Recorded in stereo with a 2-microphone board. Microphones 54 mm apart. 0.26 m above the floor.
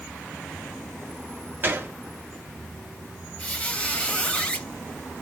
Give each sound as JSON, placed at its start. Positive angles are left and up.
{"t": 1.6, "sound": "a gunshot", "side_deg": -40, "distance_m": 0.8}
{"t": 3.4, "sound": "a squeak", "side_deg": 20, "distance_m": 0.7}